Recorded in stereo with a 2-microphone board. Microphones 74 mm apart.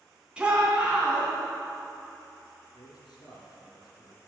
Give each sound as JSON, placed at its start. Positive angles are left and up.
{"t": 0.4, "sound": "a shout", "side_deg": -15, "distance_m": 2.5}
{"t": 2.7, "sound": "a man speaking", "side_deg": 70, "distance_m": 3.5}